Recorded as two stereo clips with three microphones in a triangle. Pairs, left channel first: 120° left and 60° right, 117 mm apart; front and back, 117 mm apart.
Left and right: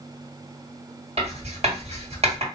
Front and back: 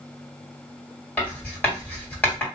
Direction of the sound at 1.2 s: 75° right.